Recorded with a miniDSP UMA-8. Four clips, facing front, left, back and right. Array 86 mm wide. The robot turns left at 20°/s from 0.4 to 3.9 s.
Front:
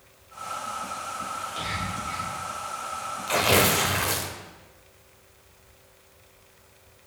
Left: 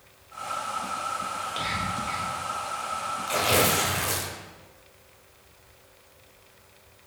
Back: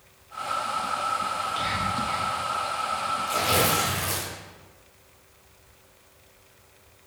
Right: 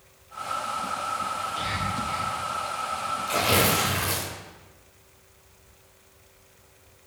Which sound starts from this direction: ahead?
Tearing paper, at 3.3 s.